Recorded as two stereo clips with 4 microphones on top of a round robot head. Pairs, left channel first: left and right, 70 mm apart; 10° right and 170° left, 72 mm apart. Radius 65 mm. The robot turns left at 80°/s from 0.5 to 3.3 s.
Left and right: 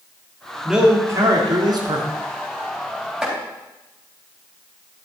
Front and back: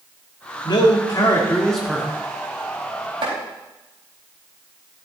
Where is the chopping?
175° right, 4 m; by 3.4 s straight behind, 4 m.